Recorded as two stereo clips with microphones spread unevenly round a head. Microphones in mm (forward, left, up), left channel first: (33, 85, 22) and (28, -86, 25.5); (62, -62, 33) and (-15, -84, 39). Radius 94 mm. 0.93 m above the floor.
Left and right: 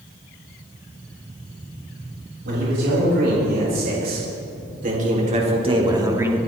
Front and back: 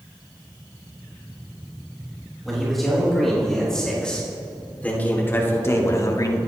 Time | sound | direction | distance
2.5 | a man speaking | 75° right | 6.5 m